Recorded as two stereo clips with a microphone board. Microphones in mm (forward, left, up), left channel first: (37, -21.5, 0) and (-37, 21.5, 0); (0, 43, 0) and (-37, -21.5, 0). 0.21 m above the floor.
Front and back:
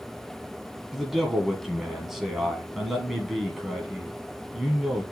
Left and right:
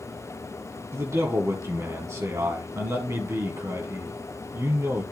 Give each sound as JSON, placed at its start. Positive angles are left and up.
{"t": 0.9, "sound": "a man speaking", "azimuth_deg": -125, "distance_m": 1.8}